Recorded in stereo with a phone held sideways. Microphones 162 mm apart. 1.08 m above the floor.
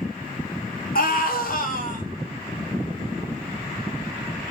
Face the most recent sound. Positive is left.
turn(degrees=55)  # may be behind; listen again after turning